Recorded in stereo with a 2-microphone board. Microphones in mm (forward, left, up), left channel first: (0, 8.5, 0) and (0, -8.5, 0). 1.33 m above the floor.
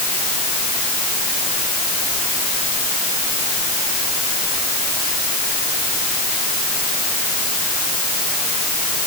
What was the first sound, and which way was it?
Only background noise.